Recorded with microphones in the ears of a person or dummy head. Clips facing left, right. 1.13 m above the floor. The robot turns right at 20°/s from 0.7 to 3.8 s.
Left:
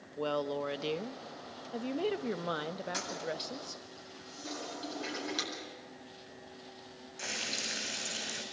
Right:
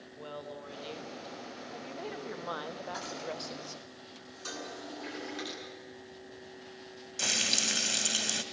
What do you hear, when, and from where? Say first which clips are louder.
0.2 s a woman speaking: left 10 dB; 110° left, 1.0 m; by 3.8 s 170° left, 1.0 m
2.9 s a toilet flushing: left 1 dB; 35° left (ahead or behind), 9 m; by 5.5 s 50° left (ahead or behind), 9 m
4.5 s dishes clattering: left 1 dB; 75° right (ahead or behind), 8.5 m
7.2 s frying: right 4 dB; 55° right (ahead or behind), 2 m